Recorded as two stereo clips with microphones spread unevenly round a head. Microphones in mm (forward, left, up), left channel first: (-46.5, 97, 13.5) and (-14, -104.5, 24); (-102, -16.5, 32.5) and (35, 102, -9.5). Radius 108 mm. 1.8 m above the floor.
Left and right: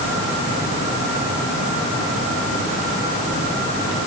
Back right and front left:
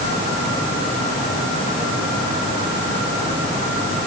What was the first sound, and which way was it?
Only background noise.